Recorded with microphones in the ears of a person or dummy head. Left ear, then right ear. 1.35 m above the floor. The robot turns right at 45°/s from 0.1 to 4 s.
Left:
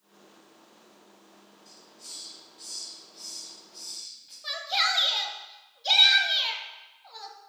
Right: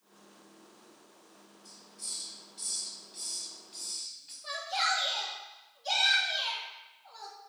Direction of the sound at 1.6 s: 50° right (ahead or behind).